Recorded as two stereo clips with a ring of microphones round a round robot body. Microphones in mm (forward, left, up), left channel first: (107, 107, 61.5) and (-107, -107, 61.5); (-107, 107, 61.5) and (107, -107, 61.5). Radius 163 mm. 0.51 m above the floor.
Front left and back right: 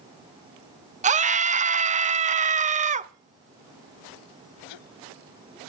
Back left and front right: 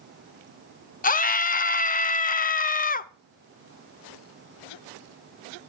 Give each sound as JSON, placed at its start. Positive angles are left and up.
{"t": 1.0, "sound": "a scream", "azimuth_deg": 175, "distance_m": 0.8}